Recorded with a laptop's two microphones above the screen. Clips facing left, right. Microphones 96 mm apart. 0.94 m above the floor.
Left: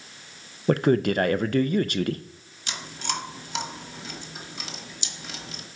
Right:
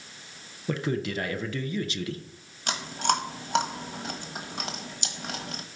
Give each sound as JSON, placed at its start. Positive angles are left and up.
{"t": 0.7, "sound": "a man speaking", "side_deg": 60, "distance_m": 0.5}
{"t": 2.7, "sound": "chewing", "side_deg": -60, "distance_m": 1.3}